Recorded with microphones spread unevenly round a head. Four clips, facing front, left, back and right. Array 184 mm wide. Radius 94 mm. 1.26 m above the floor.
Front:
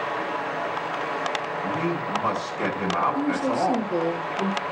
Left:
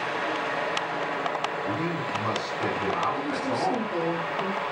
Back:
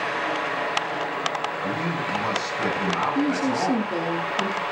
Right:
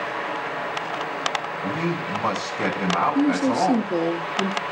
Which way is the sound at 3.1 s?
100° right.